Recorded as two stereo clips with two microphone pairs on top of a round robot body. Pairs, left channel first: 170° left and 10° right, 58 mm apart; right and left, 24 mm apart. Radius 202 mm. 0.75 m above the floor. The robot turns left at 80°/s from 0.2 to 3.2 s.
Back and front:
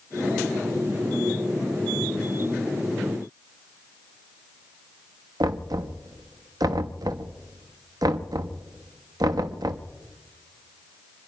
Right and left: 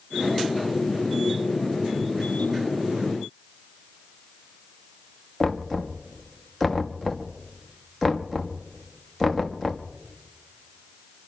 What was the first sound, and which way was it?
Knocking, straight ahead.